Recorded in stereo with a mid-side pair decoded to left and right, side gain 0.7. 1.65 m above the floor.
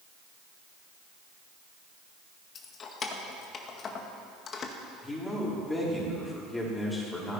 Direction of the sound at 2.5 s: 35° left.